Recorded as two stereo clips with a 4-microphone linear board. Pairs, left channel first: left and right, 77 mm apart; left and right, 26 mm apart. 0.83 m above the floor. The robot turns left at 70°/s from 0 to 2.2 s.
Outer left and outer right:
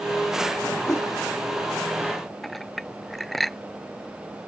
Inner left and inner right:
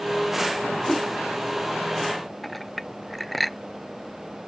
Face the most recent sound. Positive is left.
turn(degrees=0)  # may be behind; listen again after turning